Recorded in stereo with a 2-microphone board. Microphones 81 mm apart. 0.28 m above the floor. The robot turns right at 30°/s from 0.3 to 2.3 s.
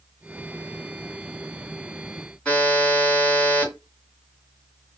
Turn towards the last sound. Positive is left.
turn(degrees=10)  # may be behind; listen again after turning